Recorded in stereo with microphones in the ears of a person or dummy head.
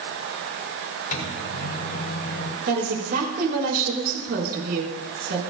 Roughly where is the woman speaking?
Right.